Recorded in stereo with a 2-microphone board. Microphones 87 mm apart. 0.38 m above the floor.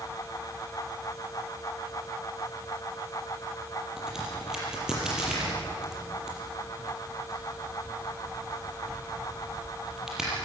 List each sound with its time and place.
4.0 s a crack: 5° right (ahead or behind), 6.5 m